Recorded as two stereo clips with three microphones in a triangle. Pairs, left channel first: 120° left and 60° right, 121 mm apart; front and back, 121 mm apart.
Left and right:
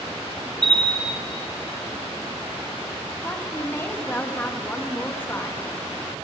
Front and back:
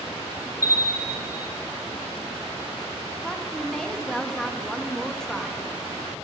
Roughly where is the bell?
Left.